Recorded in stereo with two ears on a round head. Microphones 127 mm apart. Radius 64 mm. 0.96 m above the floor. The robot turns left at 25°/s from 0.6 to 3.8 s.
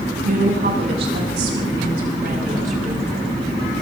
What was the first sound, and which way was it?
A woman speaking, 65° right.